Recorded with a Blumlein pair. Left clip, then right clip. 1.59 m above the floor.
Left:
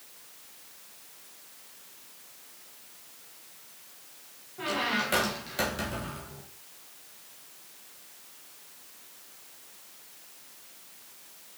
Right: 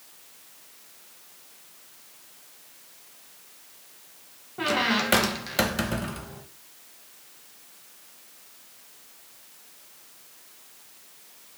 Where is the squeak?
25° right, 1.4 m.